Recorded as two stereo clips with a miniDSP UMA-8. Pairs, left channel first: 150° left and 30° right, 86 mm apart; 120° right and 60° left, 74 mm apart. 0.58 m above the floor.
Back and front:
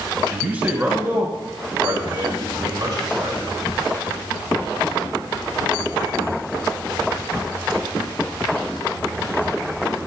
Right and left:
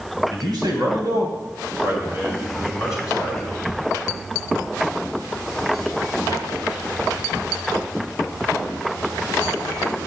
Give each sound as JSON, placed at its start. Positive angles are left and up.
{"t": 0.3, "sound": "a man speaking", "azimuth_deg": 45, "distance_m": 3.5}